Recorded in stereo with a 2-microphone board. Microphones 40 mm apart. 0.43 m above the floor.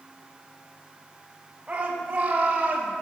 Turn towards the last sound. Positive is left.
turn(degrees=-30)  # may be behind; listen again after turning